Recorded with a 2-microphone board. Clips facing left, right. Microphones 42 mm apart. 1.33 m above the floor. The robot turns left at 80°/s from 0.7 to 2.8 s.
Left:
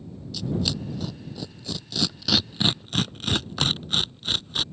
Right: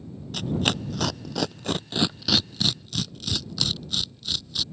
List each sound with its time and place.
0.3 s tearing paper: 50° right (ahead or behind); by 4.6 s 40° left (ahead or behind)